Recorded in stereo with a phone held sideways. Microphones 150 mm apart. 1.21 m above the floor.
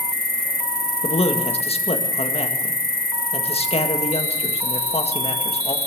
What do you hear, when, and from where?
0.0 s an insect: 75° left (ahead or behind), 2.0 m
1.0 s a man speaking: 45° left (ahead or behind), 1.8 m